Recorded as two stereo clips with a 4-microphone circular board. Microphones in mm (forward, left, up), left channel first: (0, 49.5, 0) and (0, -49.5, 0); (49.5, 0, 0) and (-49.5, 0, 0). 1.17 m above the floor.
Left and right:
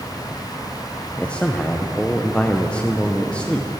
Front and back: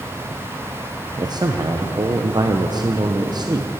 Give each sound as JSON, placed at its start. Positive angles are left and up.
{"t": 1.2, "sound": "a man speaking", "azimuth_deg": 165, "distance_m": 0.7}